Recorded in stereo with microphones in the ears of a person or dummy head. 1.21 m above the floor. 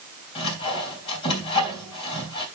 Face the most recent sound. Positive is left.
turn(degrees=30)  # may be behind; listen again after turning